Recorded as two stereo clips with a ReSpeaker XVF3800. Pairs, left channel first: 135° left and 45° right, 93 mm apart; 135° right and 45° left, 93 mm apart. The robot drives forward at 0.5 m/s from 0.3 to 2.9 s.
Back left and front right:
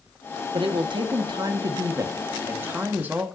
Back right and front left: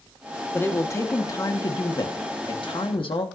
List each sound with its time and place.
0.5 s a woman speaking: 70° right, 1.5 m; by 3.3 s 115° right, 1.6 m